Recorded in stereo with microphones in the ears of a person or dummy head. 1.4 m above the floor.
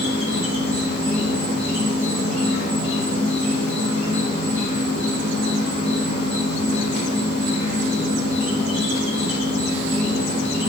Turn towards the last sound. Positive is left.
turn(degrees=-70)  # may be behind; listen again after turning